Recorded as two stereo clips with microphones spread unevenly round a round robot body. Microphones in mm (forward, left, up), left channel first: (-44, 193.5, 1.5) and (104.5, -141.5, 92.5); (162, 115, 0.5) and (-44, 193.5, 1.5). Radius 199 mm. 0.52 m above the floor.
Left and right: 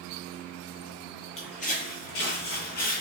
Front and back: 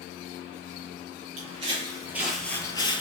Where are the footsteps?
160° right, 0.6 m; by 3.0 s 40° left, 0.6 m.